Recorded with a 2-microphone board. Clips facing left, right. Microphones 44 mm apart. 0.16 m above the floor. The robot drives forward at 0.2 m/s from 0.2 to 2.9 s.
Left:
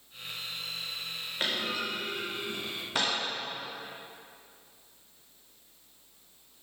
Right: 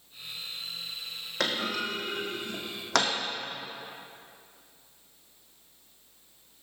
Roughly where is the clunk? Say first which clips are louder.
Right 2 dB; right.